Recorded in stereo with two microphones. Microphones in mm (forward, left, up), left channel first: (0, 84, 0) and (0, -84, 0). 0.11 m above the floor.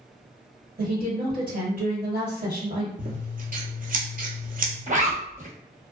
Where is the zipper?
50° right (ahead or behind), 0.9 m.